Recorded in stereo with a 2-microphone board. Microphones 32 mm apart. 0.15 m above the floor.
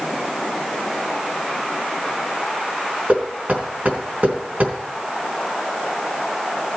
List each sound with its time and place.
3.1 s knocking: 55° right (ahead or behind), 4 m